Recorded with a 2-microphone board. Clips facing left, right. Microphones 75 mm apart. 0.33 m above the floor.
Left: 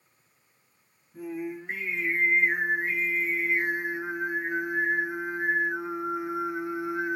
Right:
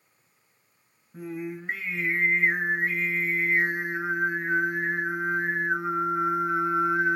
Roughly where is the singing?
Right.